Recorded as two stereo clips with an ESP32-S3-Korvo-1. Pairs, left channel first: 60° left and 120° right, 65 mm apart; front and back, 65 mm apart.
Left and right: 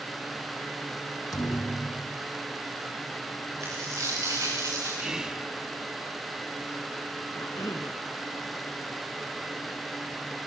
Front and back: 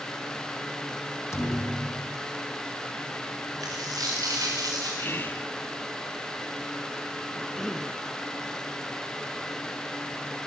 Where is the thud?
40° left, 4 m.